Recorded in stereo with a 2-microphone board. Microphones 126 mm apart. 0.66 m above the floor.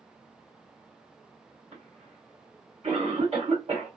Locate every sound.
1.7 s a cough: 60° right (ahead or behind), 2 m